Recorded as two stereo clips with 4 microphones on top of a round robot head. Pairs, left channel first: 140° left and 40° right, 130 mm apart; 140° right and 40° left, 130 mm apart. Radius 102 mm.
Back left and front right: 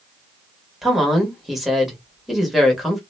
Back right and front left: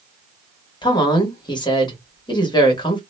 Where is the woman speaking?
125° right, 1.3 m.